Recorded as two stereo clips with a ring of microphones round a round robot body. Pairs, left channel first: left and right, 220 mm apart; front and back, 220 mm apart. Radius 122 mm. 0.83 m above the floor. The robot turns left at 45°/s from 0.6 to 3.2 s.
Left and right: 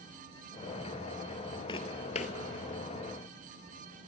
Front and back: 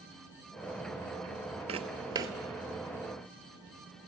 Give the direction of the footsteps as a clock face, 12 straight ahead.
7 o'clock.